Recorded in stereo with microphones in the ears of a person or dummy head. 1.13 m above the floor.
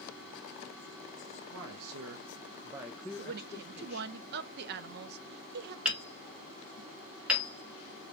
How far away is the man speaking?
About 1.1 m.